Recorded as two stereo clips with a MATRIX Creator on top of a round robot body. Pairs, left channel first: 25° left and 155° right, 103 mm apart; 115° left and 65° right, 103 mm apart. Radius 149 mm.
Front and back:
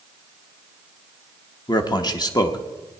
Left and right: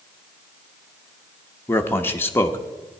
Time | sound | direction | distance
1.7 | a man speaking | 50° left | 1.1 m